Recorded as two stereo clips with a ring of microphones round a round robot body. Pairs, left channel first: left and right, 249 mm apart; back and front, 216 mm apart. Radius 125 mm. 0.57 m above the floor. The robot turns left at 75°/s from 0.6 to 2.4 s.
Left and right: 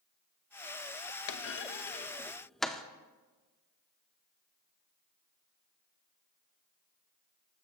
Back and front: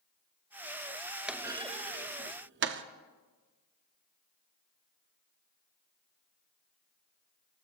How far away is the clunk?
About 0.6 m.